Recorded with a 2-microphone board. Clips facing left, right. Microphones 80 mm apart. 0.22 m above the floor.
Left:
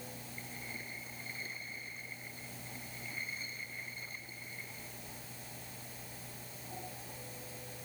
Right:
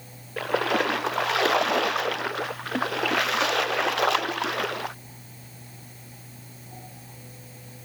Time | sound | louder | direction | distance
0.4 | a splash | right 28 dB | 85° right | ?